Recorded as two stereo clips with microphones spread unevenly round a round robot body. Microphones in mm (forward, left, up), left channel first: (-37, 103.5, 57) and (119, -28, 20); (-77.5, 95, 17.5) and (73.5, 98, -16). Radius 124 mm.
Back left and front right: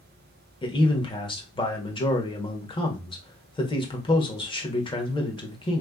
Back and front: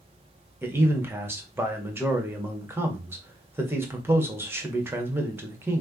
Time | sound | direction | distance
0.6 | a man speaking | 70° left | 1.8 m